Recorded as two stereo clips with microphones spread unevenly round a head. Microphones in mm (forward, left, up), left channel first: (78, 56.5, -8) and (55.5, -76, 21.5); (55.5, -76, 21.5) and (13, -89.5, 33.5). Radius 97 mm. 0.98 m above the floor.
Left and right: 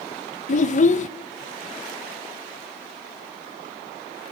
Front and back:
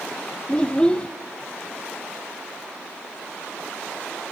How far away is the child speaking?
About 0.6 m.